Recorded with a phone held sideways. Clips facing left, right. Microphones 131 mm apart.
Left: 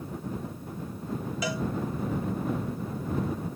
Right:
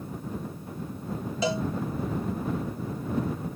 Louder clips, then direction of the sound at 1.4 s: Right 5 dB; 30° right (ahead or behind).